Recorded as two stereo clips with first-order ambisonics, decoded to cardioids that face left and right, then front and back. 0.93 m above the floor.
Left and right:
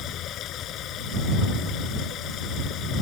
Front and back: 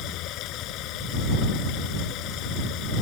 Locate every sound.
0.0 s running water: 40° left